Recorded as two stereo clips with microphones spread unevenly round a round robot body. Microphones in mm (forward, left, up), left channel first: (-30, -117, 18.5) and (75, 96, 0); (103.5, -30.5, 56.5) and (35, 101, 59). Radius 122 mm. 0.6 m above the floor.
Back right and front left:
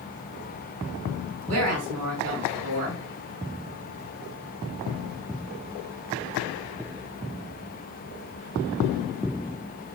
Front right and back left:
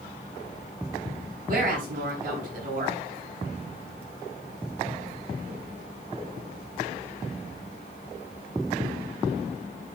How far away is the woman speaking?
About 6 m.